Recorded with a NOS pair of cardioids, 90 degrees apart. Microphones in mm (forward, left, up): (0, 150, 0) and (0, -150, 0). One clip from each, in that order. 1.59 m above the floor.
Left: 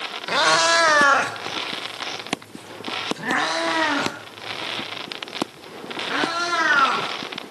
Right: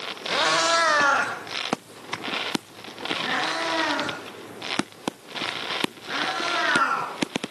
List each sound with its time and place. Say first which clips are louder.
0.3 s a cat meowing: left 4 dB; 30° left, 3 m; by 7.1 s 45° left, 10.5 m